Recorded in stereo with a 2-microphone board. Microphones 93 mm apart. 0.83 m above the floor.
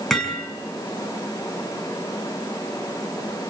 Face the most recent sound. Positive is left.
turn(degrees=5)  # may be behind; listen again after turning